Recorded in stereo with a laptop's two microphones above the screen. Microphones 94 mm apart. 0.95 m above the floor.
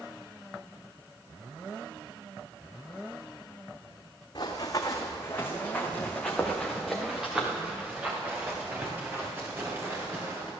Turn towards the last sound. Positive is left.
turn(degrees=-30)  # may be behind; listen again after turning